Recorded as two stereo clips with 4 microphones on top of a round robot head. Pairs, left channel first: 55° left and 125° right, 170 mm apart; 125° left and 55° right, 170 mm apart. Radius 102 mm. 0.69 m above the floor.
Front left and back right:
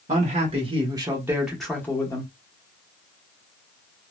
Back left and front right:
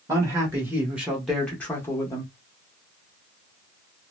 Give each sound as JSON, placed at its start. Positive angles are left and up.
{"t": 0.1, "sound": "a man speaking", "azimuth_deg": -115, "distance_m": 1.4}